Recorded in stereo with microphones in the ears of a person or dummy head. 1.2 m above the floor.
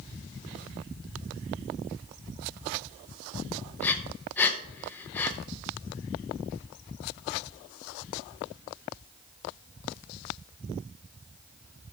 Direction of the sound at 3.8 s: 10° left (ahead or behind).